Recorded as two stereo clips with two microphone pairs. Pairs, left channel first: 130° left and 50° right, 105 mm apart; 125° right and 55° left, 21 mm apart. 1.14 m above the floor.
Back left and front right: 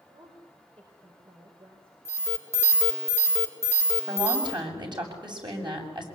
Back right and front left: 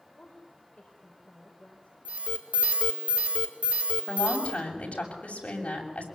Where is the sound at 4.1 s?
100° right, 7 m.